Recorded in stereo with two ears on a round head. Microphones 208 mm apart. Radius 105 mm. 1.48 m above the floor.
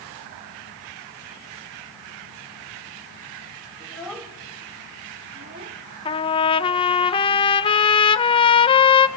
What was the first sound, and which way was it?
A child speaking, 5° left (ahead or behind).